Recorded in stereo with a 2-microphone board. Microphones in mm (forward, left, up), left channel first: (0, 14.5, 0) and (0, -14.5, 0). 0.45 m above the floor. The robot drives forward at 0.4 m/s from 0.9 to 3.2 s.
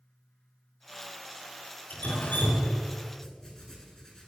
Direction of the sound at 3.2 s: 20° left (ahead or behind).